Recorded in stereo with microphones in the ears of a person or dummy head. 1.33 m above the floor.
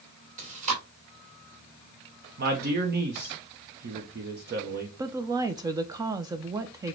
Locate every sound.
0.4 s chewing: 40° right (ahead or behind), 1.9 m
2.4 s a man speaking: 50° right (ahead or behind), 0.8 m
5.0 s a woman speaking: 20° right (ahead or behind), 0.6 m